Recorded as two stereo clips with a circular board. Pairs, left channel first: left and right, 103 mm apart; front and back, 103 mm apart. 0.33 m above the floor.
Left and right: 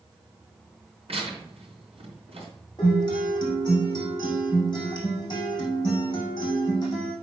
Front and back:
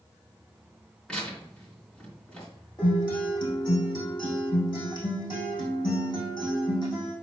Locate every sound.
1.1 s tearing paper: 80° right, 3.5 m
2.8 s a guitar: 45° left, 5.5 m